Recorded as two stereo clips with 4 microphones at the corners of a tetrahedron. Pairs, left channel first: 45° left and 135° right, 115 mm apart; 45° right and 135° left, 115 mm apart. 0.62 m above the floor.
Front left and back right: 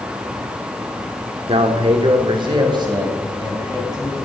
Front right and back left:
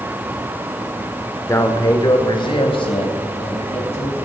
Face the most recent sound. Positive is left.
turn(degrees=-80)